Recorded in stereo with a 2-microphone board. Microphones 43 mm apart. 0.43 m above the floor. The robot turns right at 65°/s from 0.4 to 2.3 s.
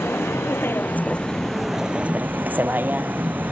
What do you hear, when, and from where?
0.0 s a vehicle: 75° left (ahead or behind); by 3.5 s 45° right (ahead or behind)